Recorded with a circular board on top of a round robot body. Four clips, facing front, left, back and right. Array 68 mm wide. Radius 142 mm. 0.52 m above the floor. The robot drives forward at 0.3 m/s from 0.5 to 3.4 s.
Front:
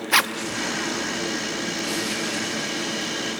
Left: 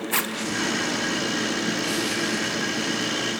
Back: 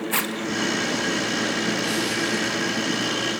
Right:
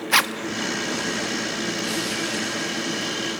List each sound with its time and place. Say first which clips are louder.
0.1 s a zipper: right 8 dB, front 9 dB; 50° right, 1.2 m